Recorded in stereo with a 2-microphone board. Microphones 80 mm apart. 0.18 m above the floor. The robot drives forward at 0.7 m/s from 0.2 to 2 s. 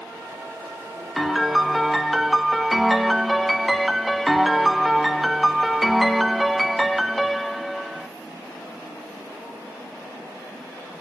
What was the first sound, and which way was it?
A piano, centre (ahead or behind).